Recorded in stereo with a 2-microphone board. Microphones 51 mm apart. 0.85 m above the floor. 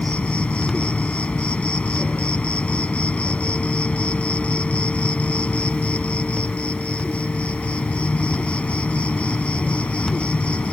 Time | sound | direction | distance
0.0 | an insect | 20° left (ahead or behind) | ?